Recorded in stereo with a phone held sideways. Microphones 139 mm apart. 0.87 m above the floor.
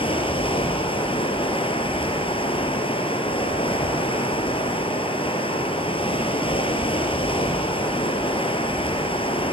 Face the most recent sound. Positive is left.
turn(degrees=40)  # may be behind; listen again after turning